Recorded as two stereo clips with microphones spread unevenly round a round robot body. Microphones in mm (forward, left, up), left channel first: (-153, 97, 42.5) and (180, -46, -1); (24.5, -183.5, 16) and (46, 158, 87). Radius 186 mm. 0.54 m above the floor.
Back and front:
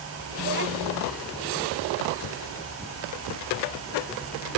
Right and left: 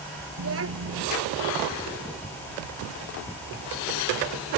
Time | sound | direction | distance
0.4 | a child speaking | 35° left | ?